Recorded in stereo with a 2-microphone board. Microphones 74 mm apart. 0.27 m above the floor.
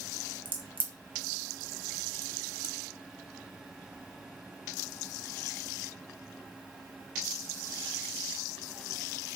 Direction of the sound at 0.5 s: 25° right (ahead or behind).